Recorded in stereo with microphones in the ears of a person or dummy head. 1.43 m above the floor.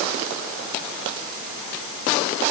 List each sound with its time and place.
Only background noise.